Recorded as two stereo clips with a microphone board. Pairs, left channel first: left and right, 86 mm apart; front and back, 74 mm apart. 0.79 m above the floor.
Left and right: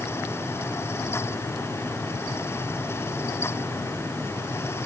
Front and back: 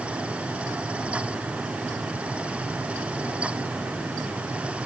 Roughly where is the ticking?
I don't hear ticking.